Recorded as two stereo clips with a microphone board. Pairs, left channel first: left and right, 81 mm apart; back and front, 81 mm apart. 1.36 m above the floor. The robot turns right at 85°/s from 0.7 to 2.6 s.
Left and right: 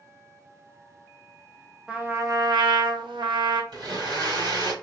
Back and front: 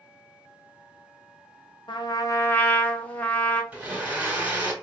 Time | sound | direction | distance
1.9 | a trumpet | 170° right | 0.6 m
3.7 | a blender | 75° right | 1.9 m